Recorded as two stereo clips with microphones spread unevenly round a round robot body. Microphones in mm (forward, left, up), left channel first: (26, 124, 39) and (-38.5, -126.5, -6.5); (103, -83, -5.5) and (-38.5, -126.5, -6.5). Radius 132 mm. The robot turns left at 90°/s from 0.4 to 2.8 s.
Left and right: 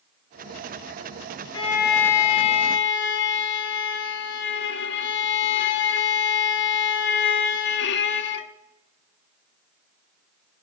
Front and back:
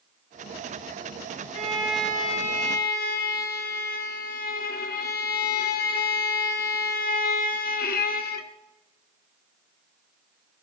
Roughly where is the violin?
Behind left.